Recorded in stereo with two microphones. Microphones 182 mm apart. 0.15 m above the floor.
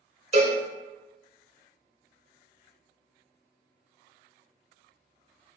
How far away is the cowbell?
About 0.7 m.